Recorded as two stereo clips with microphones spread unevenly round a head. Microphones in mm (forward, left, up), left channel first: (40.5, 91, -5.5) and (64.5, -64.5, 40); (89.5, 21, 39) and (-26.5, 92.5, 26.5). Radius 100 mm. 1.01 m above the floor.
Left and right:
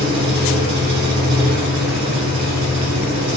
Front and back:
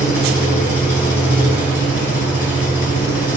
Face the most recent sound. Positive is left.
turn(degrees=-100)